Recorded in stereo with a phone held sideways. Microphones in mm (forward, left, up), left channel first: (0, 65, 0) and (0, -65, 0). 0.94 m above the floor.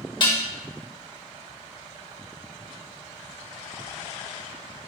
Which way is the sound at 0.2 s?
35° left (ahead or behind).